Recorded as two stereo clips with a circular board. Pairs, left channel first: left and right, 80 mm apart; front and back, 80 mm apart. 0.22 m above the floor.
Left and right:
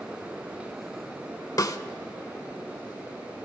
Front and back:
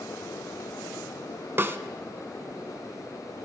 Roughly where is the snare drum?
Behind left.